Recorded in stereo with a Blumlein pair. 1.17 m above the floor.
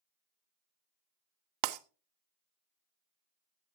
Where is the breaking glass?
40° right, 0.7 m.